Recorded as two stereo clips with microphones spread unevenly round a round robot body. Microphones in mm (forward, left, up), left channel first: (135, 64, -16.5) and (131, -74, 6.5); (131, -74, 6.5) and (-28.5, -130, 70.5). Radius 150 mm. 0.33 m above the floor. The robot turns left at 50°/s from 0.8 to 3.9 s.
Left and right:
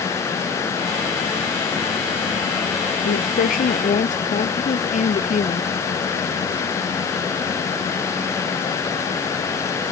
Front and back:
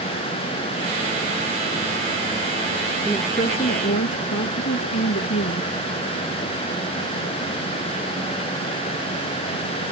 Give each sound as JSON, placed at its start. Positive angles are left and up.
{"t": 3.0, "sound": "a woman speaking", "azimuth_deg": 105}